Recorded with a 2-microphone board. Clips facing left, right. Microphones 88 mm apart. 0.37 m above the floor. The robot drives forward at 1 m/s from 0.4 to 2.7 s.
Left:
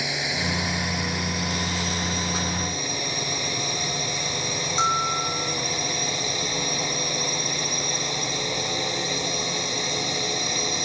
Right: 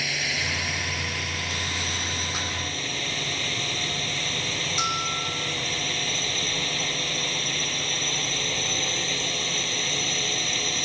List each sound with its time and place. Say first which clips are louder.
0.0 s a drone: left 3 dB; 20° left (ahead or behind); by 10.9 s 15° left (ahead or behind)
4.8 s a bell: left 7 dB; 30° left (ahead or behind)